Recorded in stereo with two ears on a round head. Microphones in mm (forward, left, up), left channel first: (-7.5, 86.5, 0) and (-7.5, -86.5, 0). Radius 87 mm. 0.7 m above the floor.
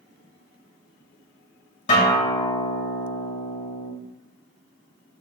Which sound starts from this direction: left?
A guitar, at 1.9 s.